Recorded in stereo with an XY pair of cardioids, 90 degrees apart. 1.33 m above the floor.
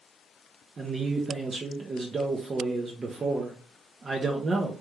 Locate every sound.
0.8 s a man speaking: 40° right, 0.6 m